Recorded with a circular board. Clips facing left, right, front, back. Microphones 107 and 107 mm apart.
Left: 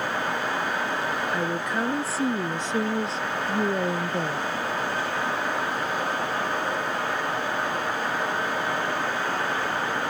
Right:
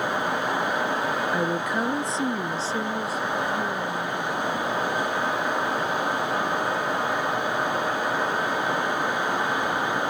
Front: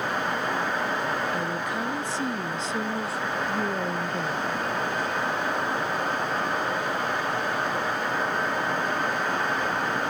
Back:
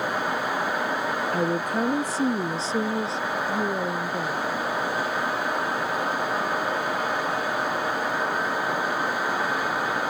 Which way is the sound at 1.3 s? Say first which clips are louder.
Right 2 dB, back 4 dB; 165° right.